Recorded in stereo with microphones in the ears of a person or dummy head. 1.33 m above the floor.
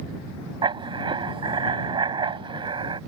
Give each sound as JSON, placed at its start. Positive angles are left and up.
{"t": 0.6, "sound": "writing", "side_deg": -30}